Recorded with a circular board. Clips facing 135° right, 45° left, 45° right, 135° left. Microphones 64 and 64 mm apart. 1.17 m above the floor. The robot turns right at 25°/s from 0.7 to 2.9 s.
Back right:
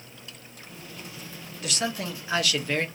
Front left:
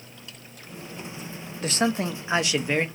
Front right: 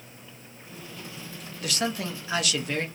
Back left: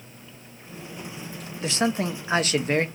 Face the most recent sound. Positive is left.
turn(degrees=115)